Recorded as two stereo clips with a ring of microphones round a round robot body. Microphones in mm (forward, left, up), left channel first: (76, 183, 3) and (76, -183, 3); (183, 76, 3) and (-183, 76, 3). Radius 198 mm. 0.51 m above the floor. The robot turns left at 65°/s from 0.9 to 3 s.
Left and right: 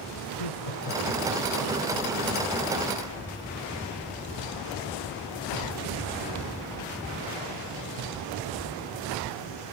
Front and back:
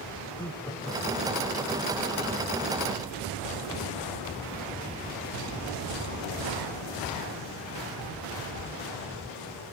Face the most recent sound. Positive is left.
turn(degrees=-50)